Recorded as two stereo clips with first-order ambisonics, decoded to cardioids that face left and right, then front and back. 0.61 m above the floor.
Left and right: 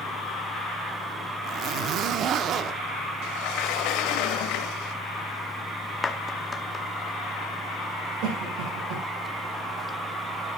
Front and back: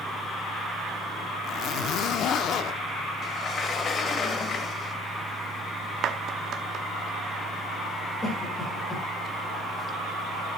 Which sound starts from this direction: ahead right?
A zipper, at 1.4 s.